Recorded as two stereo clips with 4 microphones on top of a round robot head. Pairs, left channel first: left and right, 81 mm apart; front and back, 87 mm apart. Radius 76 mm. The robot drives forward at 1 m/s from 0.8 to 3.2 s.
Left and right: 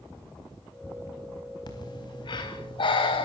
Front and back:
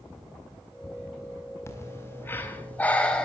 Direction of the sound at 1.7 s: 60° left.